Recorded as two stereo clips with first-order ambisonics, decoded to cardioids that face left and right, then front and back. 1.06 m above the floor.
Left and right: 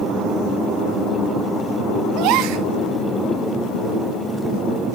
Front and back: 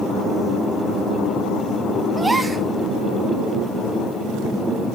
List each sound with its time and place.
2.2 s a gasp: 100° right, 0.9 m